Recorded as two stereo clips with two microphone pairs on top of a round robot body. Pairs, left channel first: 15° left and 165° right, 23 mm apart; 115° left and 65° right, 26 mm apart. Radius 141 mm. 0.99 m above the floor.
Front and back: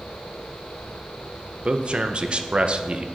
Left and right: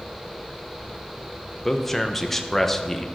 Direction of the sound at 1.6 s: 170° right.